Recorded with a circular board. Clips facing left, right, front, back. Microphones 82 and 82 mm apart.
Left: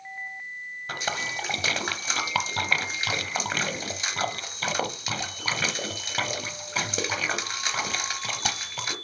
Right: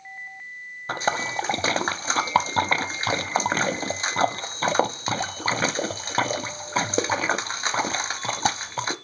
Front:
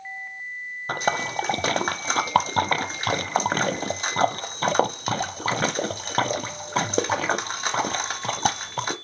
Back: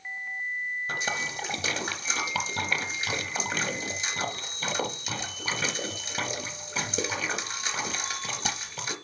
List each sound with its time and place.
0.9 s a splash: 30° right, 0.6 m